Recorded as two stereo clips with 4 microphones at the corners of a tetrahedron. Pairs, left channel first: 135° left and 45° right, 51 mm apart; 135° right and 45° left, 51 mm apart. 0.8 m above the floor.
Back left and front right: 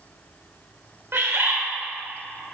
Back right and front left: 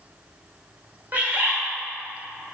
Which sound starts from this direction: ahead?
A bird, at 1.1 s.